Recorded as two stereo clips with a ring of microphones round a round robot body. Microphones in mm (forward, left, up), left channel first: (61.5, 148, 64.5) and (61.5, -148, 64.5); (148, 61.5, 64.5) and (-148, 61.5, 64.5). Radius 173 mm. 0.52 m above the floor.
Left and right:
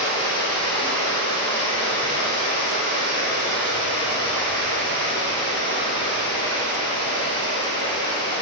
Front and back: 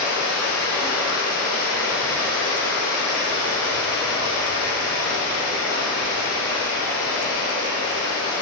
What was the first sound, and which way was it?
Running water, 20° left.